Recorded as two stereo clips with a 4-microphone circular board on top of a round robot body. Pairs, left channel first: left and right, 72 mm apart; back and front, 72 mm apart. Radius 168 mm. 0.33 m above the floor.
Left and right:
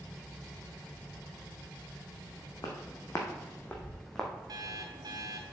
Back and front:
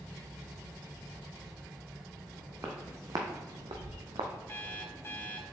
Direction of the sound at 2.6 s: 55° left.